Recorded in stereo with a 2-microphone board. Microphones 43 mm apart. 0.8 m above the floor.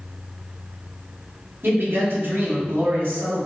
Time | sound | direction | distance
1.6 | a man speaking | 55° right (ahead or behind) | 1.6 m